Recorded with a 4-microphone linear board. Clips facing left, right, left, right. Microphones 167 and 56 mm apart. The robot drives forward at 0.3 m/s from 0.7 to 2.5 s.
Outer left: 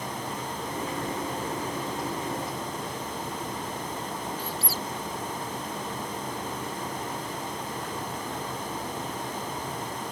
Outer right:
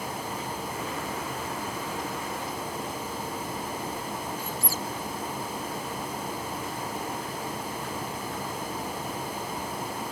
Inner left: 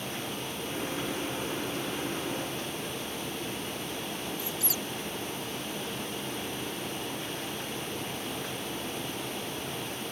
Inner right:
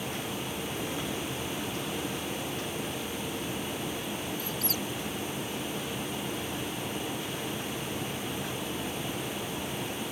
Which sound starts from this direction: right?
A squeak, at 4.4 s.